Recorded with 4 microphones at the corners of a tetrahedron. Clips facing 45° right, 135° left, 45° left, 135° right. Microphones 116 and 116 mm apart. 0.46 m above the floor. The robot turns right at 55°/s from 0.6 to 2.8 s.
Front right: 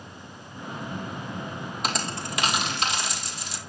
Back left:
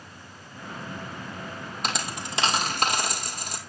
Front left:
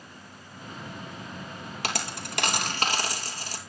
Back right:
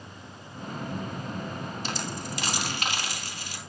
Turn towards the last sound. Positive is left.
turn(degrees=95)